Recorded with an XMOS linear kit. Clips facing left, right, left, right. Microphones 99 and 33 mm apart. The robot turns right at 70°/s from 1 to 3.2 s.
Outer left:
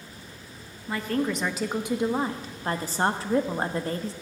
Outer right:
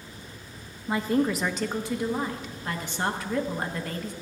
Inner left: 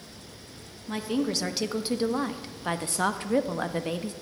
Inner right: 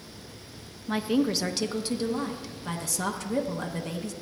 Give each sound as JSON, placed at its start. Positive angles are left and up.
{"t": 0.9, "sound": "a woman speaking", "azimuth_deg": -30, "distance_m": 0.5}